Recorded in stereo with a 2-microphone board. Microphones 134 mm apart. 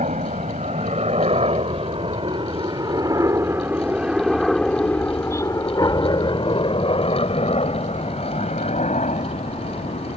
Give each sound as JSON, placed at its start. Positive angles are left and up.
{"t": 0.0, "sound": "a helicopter", "side_deg": -60}